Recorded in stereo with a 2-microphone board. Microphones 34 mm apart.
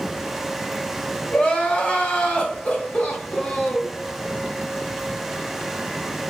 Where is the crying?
35° left (ahead or behind), 1.0 m.